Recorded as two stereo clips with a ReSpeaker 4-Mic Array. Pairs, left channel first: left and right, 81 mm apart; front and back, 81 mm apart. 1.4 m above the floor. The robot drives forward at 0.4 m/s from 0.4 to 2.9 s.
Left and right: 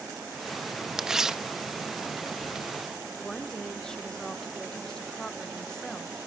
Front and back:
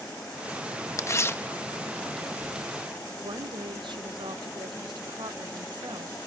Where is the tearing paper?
10° right, 0.8 m; by 2.7 s 145° right, 0.6 m.